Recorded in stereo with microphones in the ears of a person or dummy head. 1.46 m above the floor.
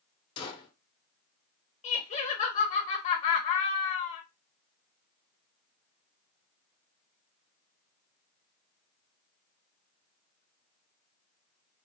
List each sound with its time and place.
0.4 s a gunshot: 25° left (ahead or behind), 0.9 m
1.8 s laughter: 40° left (ahead or behind), 0.8 m